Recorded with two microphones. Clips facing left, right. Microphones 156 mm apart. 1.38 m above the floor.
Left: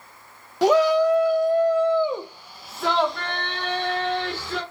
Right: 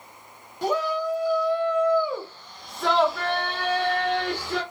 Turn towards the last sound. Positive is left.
turn(degrees=-15)  # may be behind; listen again after turning